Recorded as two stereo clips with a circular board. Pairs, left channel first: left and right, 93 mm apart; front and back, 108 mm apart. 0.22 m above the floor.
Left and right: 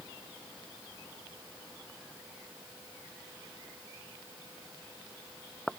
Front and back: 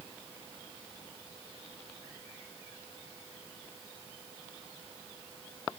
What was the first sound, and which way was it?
Only background noise.